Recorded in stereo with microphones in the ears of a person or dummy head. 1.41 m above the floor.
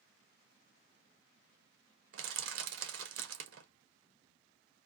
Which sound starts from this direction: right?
Crushing, at 2.1 s.